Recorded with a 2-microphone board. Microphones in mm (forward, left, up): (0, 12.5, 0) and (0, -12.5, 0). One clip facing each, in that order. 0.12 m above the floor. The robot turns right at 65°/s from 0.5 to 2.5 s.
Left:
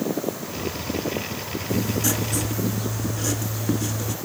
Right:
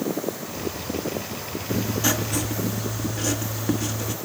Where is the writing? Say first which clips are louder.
Right 1 dB; 65° right, 1.1 m; by 4.2 s 10° right, 1.1 m.